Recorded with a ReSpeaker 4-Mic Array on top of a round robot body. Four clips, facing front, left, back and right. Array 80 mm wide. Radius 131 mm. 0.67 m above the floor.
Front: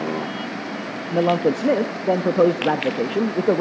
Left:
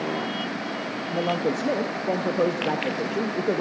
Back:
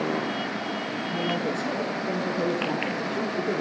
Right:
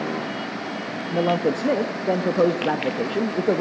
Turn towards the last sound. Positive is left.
turn(degrees=-15)